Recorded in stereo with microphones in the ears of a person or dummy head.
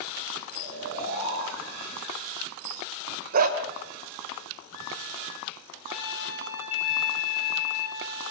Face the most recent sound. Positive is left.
turn(degrees=-25)  # may be behind; listen again after turning